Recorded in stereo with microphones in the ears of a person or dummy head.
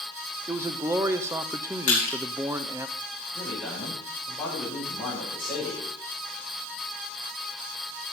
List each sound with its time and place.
0.5 s a man speaking: 15° right (ahead or behind), 0.6 m
1.9 s crushing: 45° left (ahead or behind), 3 m
3.3 s a man speaking: 10° left (ahead or behind), 6.5 m